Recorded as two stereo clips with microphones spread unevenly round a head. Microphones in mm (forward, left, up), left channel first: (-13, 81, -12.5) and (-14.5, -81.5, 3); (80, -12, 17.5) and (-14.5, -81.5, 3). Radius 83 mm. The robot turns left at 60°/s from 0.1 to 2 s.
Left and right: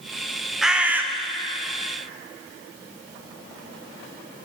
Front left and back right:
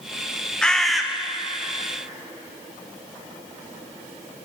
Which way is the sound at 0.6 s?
20° right.